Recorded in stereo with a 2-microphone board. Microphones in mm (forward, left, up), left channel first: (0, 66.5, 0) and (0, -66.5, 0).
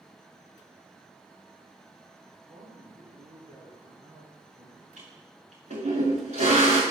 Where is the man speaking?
65° right (ahead or behind), 4 m.